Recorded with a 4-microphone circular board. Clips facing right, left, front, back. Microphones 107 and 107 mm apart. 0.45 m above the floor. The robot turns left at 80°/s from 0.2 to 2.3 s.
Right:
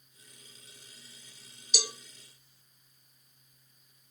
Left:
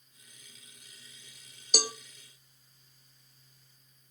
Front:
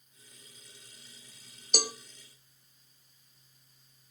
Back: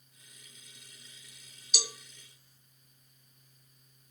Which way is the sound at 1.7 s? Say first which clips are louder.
Left 5 dB, front 7 dB; 45° left.